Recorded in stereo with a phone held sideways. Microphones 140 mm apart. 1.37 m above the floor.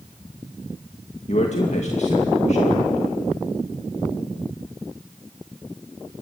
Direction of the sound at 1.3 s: 55° left (ahead or behind).